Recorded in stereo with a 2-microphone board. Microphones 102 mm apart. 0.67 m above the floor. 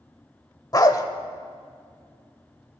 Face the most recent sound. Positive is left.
turn(degrees=40)  # may be behind; listen again after turning